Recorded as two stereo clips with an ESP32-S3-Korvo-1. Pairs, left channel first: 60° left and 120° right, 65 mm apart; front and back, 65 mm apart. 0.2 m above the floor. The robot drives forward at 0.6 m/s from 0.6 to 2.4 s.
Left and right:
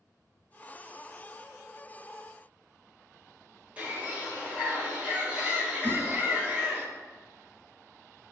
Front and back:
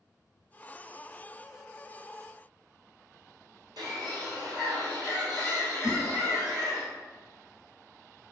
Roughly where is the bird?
Behind.